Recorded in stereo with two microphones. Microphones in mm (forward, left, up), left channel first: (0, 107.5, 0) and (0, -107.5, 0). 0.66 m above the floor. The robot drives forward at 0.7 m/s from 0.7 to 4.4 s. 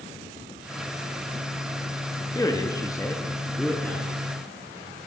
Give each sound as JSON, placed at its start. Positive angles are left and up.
{"t": 2.4, "sound": "a man speaking", "side_deg": 15, "distance_m": 0.5}